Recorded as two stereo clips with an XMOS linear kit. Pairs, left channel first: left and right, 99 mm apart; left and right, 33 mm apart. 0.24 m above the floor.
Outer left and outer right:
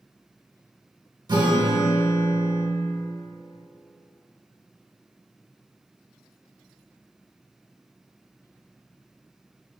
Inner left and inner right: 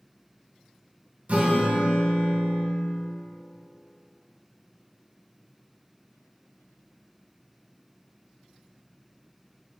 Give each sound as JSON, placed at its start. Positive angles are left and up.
{"t": 1.3, "sound": "a guitar", "side_deg": -50, "distance_m": 0.6}